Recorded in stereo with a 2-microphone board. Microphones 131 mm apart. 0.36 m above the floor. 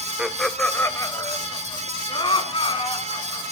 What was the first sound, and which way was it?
Laughter, 10° right (ahead or behind).